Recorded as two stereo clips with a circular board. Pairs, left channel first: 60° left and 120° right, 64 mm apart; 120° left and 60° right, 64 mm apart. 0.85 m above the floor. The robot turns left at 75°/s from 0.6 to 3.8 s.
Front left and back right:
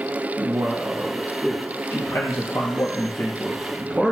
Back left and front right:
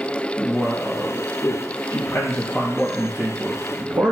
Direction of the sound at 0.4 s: 160° right.